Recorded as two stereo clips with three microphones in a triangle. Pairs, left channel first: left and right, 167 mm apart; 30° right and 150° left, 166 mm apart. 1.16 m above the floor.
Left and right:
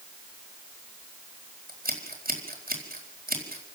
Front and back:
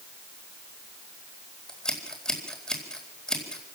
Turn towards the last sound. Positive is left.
turn(degrees=-115)